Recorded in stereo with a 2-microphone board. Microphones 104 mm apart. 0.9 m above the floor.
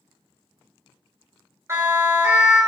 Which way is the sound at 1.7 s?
30° right (ahead or behind).